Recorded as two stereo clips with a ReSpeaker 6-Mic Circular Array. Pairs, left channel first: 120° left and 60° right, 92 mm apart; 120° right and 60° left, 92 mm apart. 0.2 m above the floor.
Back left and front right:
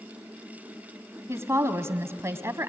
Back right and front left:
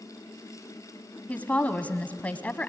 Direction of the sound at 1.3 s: 65° right.